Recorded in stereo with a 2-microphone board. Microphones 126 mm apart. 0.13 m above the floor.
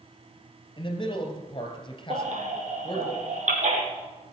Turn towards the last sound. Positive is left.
turn(degrees=-75)  # may be behind; listen again after turning